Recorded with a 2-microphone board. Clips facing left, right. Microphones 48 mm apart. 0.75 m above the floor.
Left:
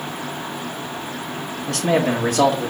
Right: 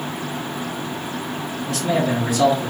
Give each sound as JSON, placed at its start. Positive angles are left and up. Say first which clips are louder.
{"t": 1.7, "sound": "a man speaking", "louder": "left 2 dB", "side_deg": 60, "distance_m": 1.6}